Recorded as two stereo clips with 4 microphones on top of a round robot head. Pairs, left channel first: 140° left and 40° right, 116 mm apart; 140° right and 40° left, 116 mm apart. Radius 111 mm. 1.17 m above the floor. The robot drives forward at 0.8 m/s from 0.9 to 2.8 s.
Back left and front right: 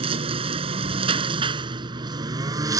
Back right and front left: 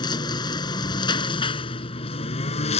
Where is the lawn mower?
85° right; by 2.8 s 100° right.